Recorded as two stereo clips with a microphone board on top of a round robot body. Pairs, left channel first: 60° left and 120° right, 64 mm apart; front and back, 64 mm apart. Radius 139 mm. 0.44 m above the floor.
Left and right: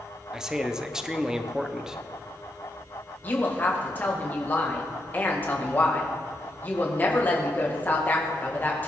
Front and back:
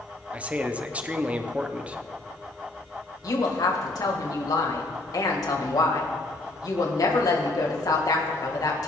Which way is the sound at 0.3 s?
175° left.